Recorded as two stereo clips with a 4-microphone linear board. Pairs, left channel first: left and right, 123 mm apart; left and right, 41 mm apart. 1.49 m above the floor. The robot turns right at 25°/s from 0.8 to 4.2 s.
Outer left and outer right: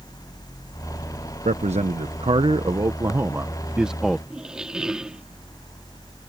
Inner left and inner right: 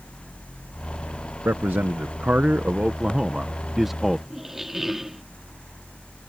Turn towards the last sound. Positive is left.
turn(degrees=-5)  # may be behind; listen again after turning